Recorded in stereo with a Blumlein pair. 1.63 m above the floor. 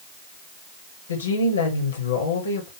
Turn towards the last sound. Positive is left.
turn(degrees=70)